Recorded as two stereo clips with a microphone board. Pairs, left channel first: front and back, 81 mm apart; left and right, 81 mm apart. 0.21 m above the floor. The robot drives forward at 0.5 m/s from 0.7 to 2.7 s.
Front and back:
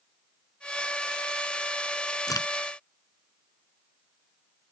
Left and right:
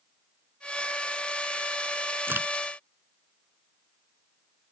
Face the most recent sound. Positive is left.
turn(degrees=-30)